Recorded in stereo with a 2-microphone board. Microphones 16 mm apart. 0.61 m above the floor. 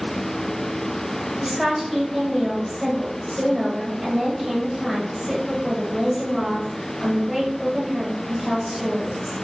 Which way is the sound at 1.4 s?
10° right (ahead or behind).